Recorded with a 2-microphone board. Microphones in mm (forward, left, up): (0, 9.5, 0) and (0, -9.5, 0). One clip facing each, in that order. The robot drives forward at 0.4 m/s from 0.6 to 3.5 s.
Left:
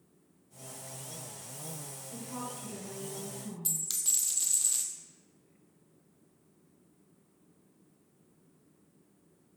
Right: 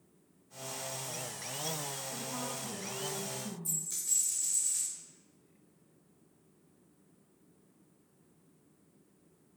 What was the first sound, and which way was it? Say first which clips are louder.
A woman speaking: right 2 dB; 5° right (ahead or behind).